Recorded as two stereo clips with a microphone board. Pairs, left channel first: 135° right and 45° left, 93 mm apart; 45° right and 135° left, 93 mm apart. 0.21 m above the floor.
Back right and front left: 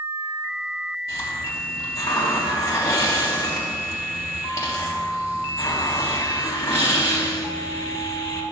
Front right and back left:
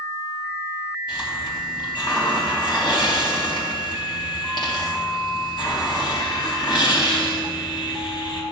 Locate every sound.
1.1 s a hiss: 80° right, 3 m